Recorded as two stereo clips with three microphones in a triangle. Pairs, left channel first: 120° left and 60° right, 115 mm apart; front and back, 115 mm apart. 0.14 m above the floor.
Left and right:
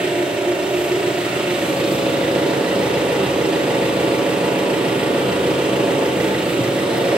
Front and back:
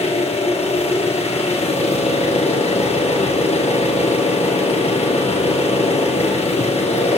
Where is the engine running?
20° left, 2.5 m.